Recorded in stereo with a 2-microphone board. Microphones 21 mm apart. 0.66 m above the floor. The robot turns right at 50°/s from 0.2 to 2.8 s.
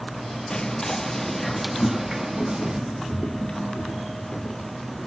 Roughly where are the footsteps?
Left.